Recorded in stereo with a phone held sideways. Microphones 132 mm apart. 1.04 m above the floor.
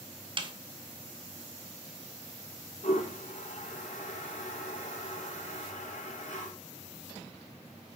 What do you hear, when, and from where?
0.4 s a snare drum: 40° right (ahead or behind), 1.2 m
2.8 s a toilet flushing: 75° left (ahead or behind), 4.5 m